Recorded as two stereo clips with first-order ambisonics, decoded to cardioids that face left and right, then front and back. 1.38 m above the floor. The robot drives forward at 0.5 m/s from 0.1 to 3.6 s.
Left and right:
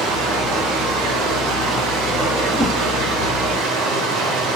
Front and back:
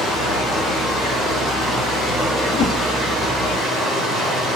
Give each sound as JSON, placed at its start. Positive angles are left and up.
{"t": 0.0, "sound": "running water", "azimuth_deg": -80, "distance_m": 5.5}
{"t": 2.5, "sound": "a whoosh", "azimuth_deg": 0, "distance_m": 0.9}